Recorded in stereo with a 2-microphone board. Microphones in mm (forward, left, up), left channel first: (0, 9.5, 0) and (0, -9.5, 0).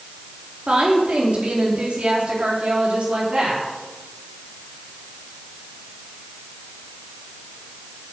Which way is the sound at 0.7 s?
70° right (ahead or behind).